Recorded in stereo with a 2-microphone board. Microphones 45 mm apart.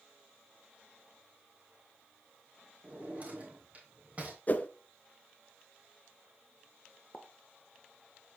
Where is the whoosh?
40° left (ahead or behind), 0.6 m.